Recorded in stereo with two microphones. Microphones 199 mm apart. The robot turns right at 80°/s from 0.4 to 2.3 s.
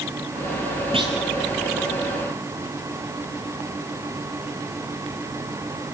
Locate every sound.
0.9 s a clunk: 25° right (ahead or behind), 3 m; by 1.2 s 10° right (ahead or behind), 3 m